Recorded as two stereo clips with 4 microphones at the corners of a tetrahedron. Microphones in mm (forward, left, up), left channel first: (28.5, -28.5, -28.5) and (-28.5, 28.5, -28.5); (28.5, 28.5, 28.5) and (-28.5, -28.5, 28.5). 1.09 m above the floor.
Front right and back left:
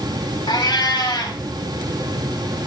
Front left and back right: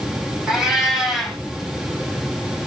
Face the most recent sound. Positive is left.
turn(degrees=-55)